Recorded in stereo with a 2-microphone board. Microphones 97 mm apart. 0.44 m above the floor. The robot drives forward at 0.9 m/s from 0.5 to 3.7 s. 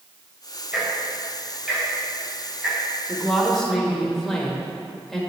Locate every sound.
0.7 s ticking: 10° right (ahead or behind), 2.5 m; by 2.8 s 5° right (ahead or behind), 4 m
3.1 s a woman speaking: 5° left (ahead or behind), 1.3 m